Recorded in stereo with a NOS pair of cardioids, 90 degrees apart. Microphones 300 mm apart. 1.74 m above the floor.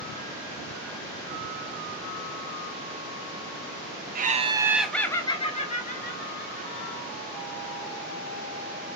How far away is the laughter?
About 1.0 m.